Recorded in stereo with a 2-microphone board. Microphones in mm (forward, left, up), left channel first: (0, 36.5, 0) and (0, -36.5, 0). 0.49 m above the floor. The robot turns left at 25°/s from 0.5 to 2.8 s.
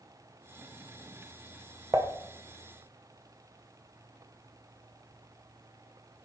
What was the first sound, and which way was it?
Dishes clattering, 40° right (ahead or behind).